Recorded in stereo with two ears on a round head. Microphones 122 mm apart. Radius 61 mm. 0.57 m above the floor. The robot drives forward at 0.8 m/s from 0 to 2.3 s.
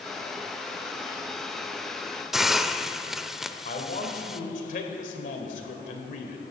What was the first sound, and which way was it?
A hiss, centre (ahead or behind).